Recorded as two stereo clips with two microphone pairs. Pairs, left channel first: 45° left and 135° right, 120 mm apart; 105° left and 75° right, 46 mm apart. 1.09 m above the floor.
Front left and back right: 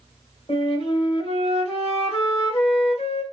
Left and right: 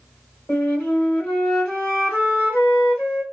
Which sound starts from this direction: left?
A flute, at 0.5 s.